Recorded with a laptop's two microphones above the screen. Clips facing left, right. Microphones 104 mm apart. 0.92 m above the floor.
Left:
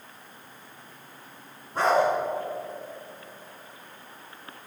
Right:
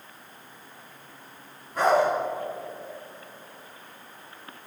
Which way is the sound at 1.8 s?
30° left (ahead or behind).